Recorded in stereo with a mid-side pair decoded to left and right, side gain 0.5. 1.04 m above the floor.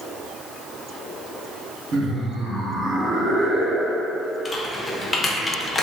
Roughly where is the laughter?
Ahead right.